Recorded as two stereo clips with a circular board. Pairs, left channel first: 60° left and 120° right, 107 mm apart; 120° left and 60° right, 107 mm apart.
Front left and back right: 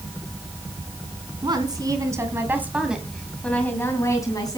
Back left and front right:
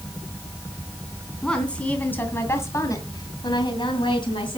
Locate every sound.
1.4 s a woman speaking: 160° right, 3 m; by 4.6 s 100° left, 2.5 m